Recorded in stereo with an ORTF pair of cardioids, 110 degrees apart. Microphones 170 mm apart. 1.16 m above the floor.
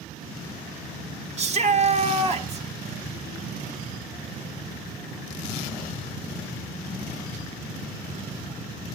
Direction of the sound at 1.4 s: 40° right.